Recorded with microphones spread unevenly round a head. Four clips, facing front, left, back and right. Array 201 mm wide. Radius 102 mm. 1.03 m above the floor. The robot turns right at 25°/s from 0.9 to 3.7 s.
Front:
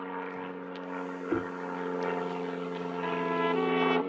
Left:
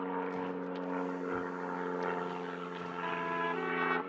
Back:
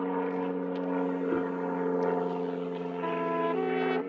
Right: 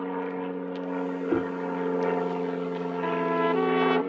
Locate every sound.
0.0 s an aircraft: 145° right; by 4.1 s 75° right
1.3 s knocking: 65° right; by 1.5 s 60° right
3.0 s a trumpet: 125° right; by 4.0 s 105° right